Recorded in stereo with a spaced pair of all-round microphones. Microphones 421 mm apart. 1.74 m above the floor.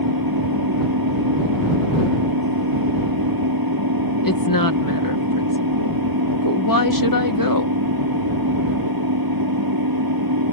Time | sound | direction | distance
0.0 | an engine running | 55° right (ahead or behind) | ?
4.2 | a woman speaking | 50° left (ahead or behind) | ?